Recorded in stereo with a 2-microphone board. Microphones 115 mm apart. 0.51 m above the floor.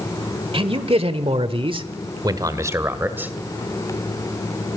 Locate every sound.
0.5 s a man speaking: 55° right (ahead or behind), 1.6 m; by 3.3 s 15° right (ahead or behind), 2 m